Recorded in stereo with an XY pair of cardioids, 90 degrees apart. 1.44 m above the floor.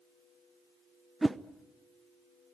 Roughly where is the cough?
No cough in this recording.